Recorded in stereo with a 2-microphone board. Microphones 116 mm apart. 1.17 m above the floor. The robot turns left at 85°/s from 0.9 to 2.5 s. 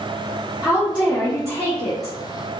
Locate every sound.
0.6 s a woman speaking: 165° right, 0.9 m; by 2.1 s 90° left, 0.9 m